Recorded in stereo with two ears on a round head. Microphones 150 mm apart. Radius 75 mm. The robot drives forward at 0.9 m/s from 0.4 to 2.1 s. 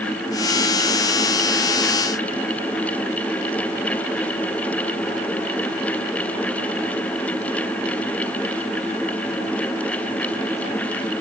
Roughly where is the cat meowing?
I don't hear a cat meowing.